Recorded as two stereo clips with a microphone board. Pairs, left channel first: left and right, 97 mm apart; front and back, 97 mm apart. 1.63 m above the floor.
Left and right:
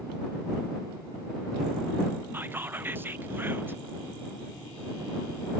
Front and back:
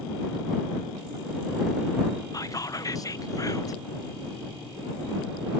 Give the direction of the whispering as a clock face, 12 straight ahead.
1 o'clock.